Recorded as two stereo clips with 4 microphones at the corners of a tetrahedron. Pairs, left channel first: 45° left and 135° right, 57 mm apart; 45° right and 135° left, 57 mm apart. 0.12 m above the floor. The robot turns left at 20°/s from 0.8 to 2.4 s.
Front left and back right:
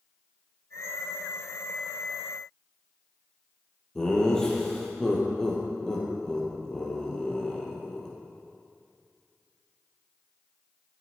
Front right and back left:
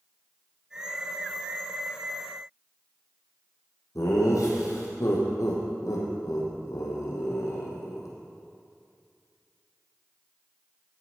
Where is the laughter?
35° right, 3.5 m.